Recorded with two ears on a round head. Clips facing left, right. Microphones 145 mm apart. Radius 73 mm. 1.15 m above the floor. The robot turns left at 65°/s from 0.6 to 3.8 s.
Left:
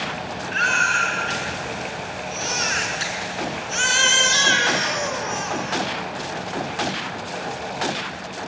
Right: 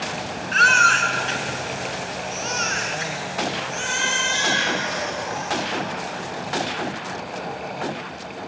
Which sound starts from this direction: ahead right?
A baby crying, at 0.5 s.